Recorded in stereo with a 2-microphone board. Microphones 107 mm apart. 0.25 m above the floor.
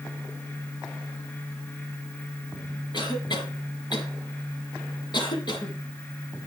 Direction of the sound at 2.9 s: 50° left (ahead or behind).